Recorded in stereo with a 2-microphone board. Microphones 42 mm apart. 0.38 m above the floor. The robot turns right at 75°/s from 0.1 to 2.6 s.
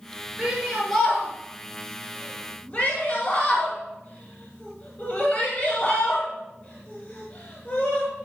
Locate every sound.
0.4 s a shout: 25° right (ahead or behind), 2 m; by 8.1 s 35° left (ahead or behind), 2 m